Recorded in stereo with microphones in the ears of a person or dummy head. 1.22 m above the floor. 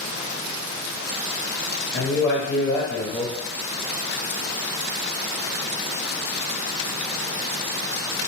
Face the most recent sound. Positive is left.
turn(degrees=30)  # may be behind; listen again after turning